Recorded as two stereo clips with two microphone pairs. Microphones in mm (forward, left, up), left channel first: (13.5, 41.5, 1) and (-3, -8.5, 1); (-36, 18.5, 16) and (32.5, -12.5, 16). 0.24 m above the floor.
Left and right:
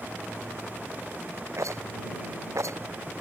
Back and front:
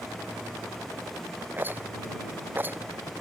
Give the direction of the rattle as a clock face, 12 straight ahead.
3 o'clock.